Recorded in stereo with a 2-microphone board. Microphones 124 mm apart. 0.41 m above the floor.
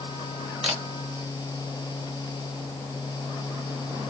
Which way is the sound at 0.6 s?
5° right (ahead or behind).